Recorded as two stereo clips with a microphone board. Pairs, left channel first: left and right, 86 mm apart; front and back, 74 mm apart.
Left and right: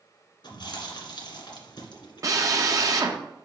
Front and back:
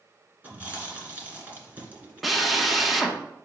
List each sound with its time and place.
0.4 s chewing: 115° left, 2 m
2.2 s a drill: 90° right, 0.8 m